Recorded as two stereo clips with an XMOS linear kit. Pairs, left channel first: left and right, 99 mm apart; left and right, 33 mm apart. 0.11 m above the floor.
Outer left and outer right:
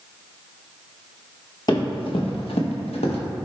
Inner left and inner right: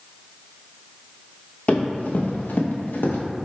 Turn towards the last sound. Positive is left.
turn(degrees=80)